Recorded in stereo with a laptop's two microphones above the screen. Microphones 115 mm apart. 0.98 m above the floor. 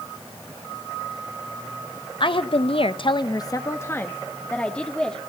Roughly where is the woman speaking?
Left.